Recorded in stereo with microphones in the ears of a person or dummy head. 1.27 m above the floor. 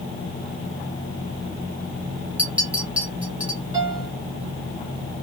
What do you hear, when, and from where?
2.4 s a clink: 5° right (ahead or behind), 0.7 m
3.7 s a piano: 30° right (ahead or behind), 1.3 m